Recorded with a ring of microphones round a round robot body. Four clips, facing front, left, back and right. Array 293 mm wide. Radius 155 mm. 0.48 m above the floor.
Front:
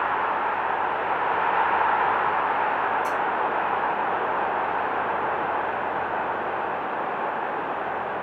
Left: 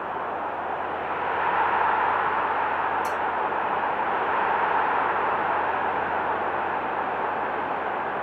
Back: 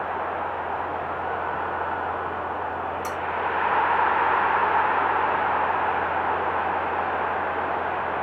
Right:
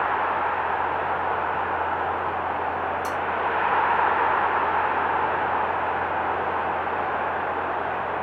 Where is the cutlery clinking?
165° left, 3.5 m.